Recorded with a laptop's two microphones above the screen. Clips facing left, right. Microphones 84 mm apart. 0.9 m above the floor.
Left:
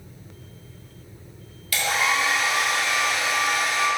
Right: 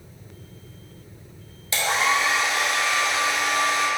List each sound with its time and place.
1.7 s a hair dryer: 25° right (ahead or behind), 0.5 m